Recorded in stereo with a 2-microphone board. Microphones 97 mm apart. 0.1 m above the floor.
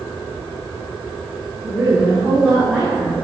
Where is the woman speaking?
5° right (ahead or behind), 1.4 m.